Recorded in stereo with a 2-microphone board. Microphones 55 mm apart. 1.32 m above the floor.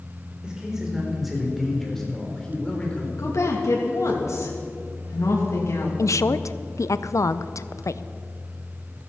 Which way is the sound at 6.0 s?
75° left (ahead or behind).